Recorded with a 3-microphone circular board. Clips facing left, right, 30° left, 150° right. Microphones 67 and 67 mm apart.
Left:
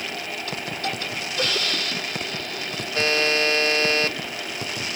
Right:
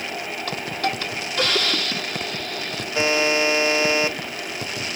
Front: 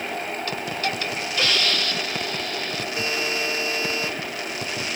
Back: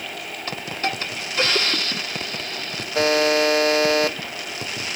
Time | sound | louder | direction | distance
0.5 | a hiss | right 5 dB, back 3 dB | 95° right | 1.6 m
3.0 | a buzzer | right 2 dB, back 11 dB | 165° right | 0.8 m